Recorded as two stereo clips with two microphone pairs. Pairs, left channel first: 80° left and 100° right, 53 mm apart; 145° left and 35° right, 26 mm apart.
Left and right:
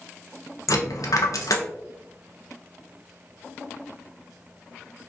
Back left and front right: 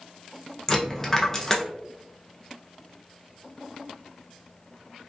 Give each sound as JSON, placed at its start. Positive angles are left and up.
{"t": 0.7, "sound": "a dropped coin", "azimuth_deg": 80, "distance_m": 0.6}